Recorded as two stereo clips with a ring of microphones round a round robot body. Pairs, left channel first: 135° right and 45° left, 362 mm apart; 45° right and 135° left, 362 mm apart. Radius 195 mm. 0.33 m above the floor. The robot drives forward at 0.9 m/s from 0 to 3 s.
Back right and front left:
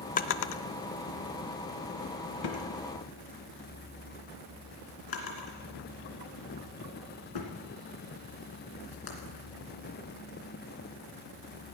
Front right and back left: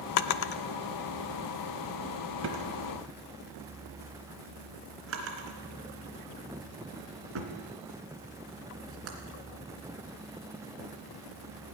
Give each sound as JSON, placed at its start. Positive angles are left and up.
{"t": 0.2, "sound": "a drawer", "azimuth_deg": -65, "distance_m": 0.6}